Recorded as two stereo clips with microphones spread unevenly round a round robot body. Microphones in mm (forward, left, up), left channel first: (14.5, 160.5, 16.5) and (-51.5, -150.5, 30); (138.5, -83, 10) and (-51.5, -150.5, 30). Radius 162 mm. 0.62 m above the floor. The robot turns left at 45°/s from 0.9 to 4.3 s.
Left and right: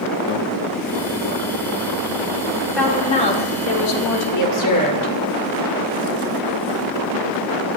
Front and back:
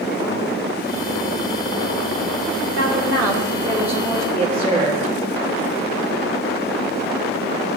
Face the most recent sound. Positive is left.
turn(degrees=95)